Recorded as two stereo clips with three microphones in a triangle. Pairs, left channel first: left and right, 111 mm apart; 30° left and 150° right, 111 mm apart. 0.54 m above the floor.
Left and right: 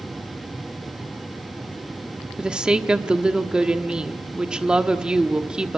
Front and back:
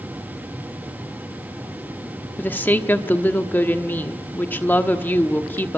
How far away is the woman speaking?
About 1.1 m.